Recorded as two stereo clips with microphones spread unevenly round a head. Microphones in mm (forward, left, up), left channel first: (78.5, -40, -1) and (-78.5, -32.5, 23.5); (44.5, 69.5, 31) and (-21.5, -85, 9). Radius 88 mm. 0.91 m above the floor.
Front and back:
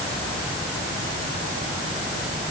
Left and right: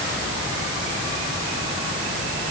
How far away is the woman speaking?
I don't hear a woman speaking.